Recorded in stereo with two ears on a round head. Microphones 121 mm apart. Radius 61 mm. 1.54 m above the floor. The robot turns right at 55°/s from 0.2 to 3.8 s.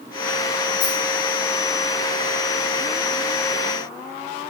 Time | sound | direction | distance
0.8 | a rattle | 70° left (ahead or behind) | 6.5 m